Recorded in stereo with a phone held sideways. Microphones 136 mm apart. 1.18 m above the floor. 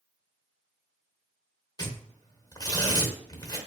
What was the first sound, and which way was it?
Tearing paper, 30° left (ahead or behind).